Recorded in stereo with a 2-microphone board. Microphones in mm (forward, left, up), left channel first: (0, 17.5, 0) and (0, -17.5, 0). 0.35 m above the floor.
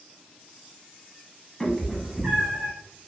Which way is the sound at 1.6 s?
5° left (ahead or behind).